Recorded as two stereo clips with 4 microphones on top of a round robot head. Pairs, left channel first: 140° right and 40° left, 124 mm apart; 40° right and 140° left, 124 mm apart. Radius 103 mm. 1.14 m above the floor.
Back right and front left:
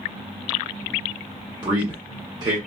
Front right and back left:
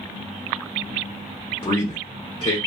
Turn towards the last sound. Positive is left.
turn(degrees=-5)